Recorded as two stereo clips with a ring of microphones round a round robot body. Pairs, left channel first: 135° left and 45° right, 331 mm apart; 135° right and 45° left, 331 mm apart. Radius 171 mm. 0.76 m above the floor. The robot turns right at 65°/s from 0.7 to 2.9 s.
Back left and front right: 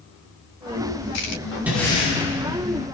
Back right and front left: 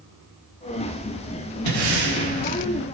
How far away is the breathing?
About 1.5 m.